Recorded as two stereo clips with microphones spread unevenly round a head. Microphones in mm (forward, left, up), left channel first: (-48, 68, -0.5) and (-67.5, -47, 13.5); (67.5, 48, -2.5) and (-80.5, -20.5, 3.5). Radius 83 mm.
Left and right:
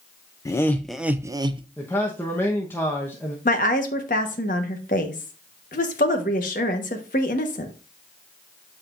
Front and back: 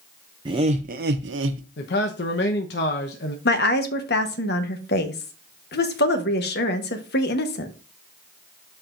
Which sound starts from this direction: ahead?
A man speaking, at 1.8 s.